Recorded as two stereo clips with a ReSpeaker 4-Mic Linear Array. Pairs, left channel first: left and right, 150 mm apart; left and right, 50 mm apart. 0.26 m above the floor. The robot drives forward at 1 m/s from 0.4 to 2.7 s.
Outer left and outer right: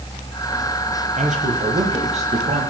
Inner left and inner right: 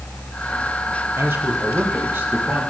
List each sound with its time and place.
1.2 s a man speaking: 50° right (ahead or behind), 7.5 m; by 2.6 s 45° right (ahead or behind), 8.5 m